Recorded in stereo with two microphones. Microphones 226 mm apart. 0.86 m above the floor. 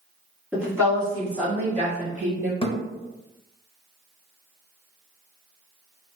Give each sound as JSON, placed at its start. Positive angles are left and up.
{"t": 0.5, "sound": "a woman speaking", "side_deg": -10, "distance_m": 1.7}
{"t": 2.6, "sound": "a thud", "side_deg": 25, "distance_m": 0.7}